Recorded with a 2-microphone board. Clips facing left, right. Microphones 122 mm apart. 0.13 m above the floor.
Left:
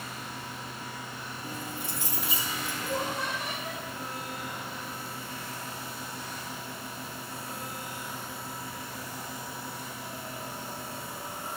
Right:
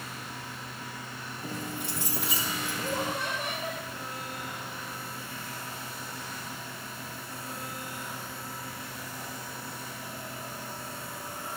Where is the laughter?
60° right (ahead or behind), 9.5 m.